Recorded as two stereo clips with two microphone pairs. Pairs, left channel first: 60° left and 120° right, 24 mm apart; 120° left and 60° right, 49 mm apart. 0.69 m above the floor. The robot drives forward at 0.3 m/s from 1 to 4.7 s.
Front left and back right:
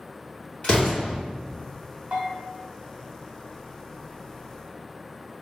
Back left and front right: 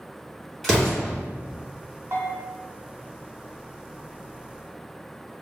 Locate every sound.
0.6 s an explosion: 25° left, 1.4 m
2.1 s a bell: 95° right, 0.6 m; by 2.5 s 105° right, 0.6 m